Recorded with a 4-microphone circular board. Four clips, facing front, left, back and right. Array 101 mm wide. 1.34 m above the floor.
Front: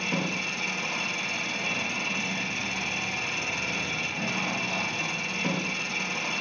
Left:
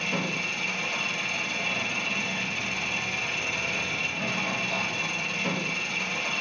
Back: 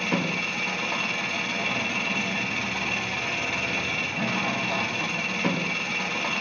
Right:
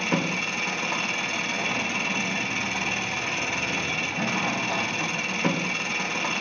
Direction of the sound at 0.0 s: 115° right.